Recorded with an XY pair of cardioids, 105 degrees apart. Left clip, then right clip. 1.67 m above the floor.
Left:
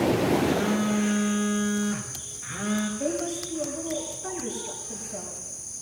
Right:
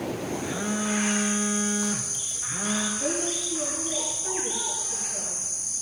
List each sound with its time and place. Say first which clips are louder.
0.4 s a phone buzzing: left 4 dB; 15° left, 5 m
3.0 s a woman speaking: right 2 dB; 60° left, 7.5 m